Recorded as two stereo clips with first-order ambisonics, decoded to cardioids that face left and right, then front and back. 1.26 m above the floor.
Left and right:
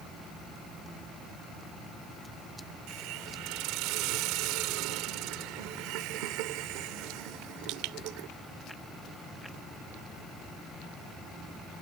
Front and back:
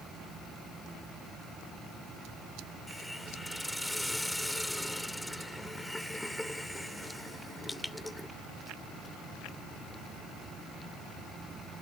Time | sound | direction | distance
2.9 | a hiss | 85° right | ?